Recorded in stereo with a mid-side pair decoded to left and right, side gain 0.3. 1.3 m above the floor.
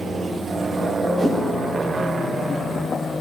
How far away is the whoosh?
About 7 m.